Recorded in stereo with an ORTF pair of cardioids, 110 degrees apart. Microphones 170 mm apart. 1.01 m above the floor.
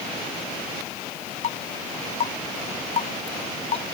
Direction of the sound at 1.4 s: 45° left.